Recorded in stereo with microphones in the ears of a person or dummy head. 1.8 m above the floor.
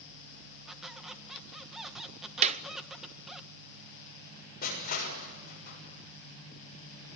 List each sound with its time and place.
0.7 s a squeak: 5° right (ahead or behind), 1.3 m
2.4 s a clap: 40° right (ahead or behind), 0.9 m
4.6 s crushing: 50° left (ahead or behind), 6.5 m